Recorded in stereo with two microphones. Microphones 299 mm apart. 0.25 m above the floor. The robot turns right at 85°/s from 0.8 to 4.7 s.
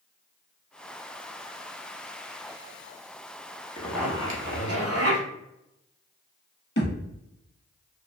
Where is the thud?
40° left (ahead or behind), 0.9 m.